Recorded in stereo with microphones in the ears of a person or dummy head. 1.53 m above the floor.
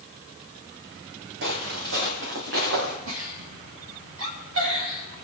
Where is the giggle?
80° right, 3 m.